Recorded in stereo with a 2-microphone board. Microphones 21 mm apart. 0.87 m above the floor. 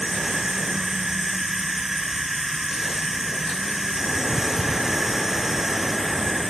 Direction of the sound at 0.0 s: 25° right (ahead or behind).